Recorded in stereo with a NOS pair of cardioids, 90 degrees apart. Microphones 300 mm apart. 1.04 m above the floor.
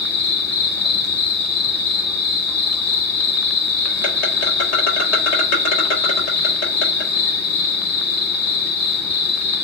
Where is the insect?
60° left, 1.5 m.